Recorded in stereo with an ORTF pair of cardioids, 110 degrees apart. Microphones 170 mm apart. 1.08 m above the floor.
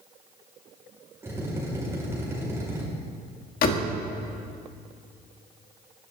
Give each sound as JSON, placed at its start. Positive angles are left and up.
{"t": 1.2, "sound": "a drill", "azimuth_deg": -15, "distance_m": 5.0}
{"t": 3.6, "sound": "a door slam", "azimuth_deg": 60, "distance_m": 1.8}